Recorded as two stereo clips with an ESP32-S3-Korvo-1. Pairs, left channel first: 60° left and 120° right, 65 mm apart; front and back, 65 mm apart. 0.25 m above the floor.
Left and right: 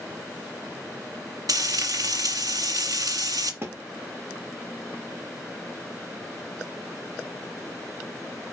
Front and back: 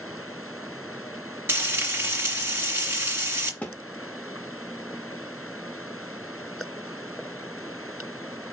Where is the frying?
125° right, 3 m.